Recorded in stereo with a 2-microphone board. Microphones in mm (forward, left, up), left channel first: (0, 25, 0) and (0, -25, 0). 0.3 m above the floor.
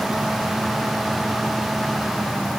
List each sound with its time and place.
Only background noise.